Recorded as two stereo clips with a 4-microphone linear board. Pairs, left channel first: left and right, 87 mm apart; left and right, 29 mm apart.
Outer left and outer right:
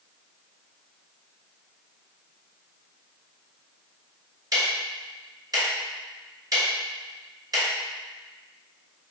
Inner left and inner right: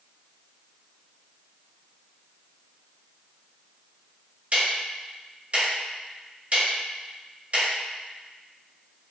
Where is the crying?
No crying in this recording.